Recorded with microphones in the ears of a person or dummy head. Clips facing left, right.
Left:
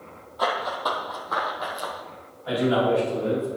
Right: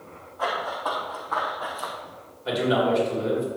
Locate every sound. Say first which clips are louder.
0.4 s running footsteps: left 2 dB; 45° left (ahead or behind), 2.5 m; by 1.9 s 30° left (ahead or behind), 3 m
2.5 s a man speaking: left 1 dB; 40° right (ahead or behind), 4.5 m